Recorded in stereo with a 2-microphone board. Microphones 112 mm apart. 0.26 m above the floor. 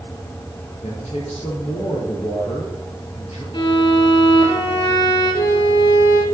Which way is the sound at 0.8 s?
75° left (ahead or behind).